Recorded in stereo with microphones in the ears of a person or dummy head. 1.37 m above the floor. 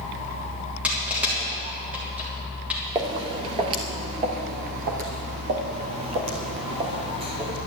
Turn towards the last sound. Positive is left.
turn(degrees=-25)  # may be behind; listen again after turning